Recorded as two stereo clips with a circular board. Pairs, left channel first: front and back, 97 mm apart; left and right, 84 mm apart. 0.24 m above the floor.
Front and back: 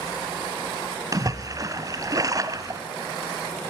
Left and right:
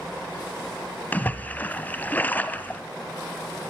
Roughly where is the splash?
Behind left.